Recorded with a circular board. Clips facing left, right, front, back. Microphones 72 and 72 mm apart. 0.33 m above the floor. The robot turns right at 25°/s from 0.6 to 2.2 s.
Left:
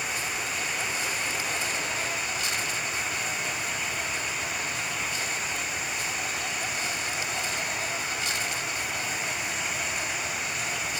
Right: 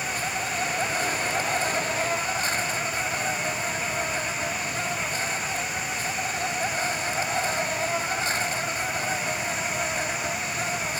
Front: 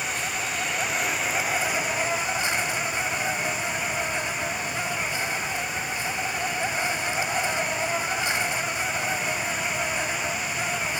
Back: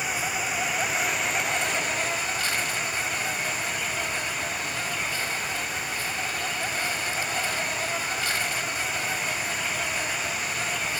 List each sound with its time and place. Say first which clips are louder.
0.0 s an insect: right 3 dB, back 1 dB; 105° right; by 11.0 s 65° right